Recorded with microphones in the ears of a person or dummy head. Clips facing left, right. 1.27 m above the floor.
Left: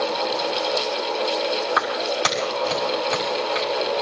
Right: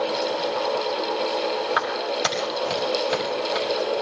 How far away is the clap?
About 5 m.